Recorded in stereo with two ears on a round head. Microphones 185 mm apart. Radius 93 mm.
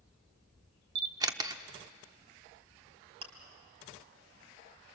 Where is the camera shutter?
20° right (ahead or behind), 0.8 m.